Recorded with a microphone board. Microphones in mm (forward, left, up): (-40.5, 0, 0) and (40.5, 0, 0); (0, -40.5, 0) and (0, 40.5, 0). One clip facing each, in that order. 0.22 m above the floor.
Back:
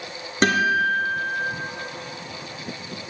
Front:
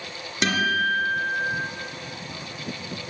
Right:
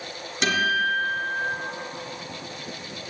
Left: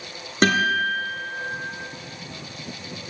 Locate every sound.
0.4 s a guitar: 130° left, 2.5 m